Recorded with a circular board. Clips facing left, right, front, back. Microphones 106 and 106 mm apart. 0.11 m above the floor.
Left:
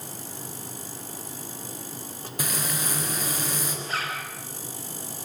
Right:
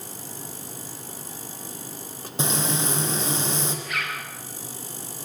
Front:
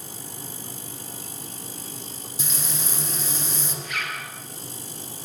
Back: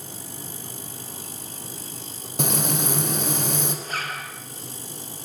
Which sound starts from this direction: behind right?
Frying, at 2.4 s.